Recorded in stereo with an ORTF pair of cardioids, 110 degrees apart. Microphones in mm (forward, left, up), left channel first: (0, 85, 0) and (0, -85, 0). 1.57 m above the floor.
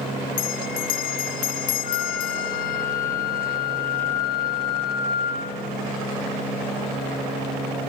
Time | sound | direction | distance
0.4 | a bell | 65° left | 0.5 m
1.8 | a flute | 55° left | 4 m